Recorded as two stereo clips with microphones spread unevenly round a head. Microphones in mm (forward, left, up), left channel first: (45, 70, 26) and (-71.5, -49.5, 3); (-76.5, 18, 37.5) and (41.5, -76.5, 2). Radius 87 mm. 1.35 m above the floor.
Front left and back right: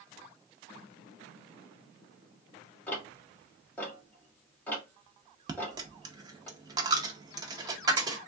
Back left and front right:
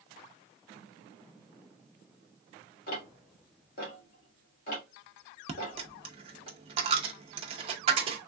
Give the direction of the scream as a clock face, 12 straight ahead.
I don't hear a scream.